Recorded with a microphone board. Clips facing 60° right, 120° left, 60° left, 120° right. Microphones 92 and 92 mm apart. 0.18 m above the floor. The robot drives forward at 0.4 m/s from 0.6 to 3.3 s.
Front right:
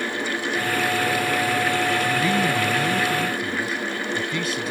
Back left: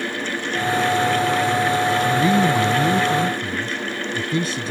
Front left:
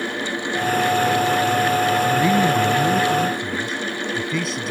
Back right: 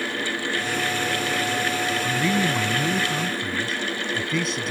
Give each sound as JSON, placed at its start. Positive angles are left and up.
{"t": 2.0, "sound": "a man speaking", "azimuth_deg": 105}